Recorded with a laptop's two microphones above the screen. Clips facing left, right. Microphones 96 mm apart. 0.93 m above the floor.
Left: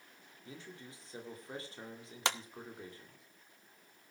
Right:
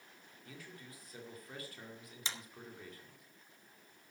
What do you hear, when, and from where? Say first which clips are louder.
0.5 s a man speaking: left 3 dB; 25° left (ahead or behind), 2 m
2.2 s a clap: left 11 dB; 65° left (ahead or behind), 0.7 m